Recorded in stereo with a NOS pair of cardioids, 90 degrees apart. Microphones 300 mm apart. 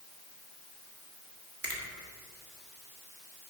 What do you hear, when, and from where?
1.6 s a finger snap: 35° right, 1.6 m